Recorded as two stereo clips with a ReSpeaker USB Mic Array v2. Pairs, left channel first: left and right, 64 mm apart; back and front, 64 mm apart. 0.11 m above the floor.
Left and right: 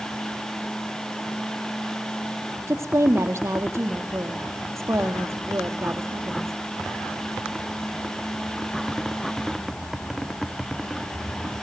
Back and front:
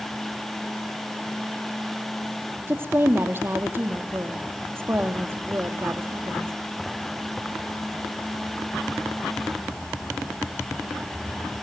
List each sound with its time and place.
2.7 s a woman speaking: 50° right, 3 m